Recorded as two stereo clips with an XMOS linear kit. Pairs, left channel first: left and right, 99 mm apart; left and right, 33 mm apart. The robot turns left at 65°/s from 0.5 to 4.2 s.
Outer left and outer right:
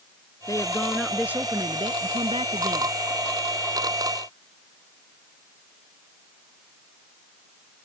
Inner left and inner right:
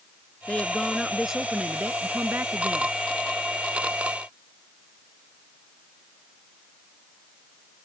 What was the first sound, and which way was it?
A woman speaking, 35° left.